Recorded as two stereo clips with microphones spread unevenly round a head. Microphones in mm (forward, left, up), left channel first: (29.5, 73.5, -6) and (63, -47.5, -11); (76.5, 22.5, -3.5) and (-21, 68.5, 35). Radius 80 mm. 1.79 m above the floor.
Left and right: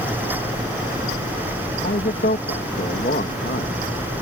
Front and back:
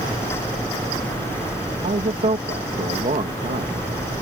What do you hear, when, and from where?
1.8 s a man speaking: 140° left